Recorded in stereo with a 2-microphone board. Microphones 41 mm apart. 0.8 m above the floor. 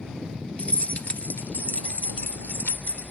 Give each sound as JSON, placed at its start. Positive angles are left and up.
{"t": 0.6, "sound": "keys jangling", "side_deg": 35}